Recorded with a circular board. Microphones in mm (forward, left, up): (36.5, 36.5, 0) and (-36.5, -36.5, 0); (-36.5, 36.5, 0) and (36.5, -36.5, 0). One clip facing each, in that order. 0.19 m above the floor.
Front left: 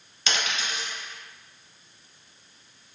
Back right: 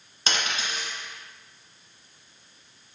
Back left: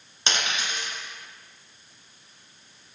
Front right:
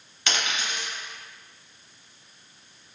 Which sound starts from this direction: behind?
A dropped coin, at 0.3 s.